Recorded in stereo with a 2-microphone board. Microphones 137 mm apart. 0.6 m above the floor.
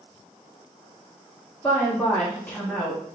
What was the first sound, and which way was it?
A woman speaking, 15° left (ahead or behind).